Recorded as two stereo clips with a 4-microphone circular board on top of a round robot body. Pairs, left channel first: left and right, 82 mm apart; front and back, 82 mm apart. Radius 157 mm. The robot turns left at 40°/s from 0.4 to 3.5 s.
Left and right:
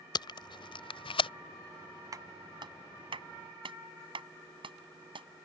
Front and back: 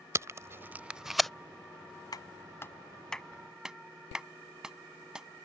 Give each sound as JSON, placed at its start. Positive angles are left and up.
{"t": 0.1, "sound": "tape being pulled", "azimuth_deg": 120}
{"t": 2.1, "sound": "a clap", "azimuth_deg": -45}